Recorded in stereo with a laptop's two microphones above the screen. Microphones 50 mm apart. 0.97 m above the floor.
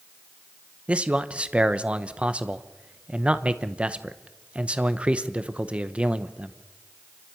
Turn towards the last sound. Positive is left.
turn(degrees=-25)  # may be behind; listen again after turning